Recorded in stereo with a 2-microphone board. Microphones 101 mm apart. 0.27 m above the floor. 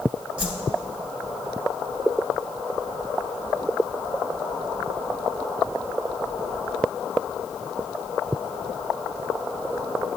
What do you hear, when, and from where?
0.4 s a whoosh: 15° right (ahead or behind), 1.3 m